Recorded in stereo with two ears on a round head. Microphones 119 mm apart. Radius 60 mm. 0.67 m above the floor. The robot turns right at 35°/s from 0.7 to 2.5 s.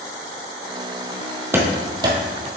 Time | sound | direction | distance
1.5 | running footsteps | 15° right (ahead or behind) | 1.2 m